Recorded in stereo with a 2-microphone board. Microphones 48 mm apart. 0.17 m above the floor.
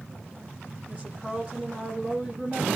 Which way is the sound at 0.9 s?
25° right (ahead or behind).